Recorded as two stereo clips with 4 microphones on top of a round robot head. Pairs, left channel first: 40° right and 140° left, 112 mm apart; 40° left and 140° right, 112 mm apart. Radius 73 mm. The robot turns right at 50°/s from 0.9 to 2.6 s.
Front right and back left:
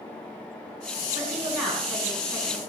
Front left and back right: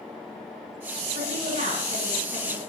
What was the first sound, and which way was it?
A woman speaking, 160° right.